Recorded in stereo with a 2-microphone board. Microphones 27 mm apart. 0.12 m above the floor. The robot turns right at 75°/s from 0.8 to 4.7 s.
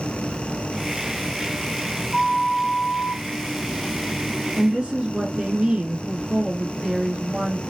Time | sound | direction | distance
2.1 | a flute | 20° left | 4.5 m
4.6 | a woman speaking | 30° right (ahead or behind) | 4.5 m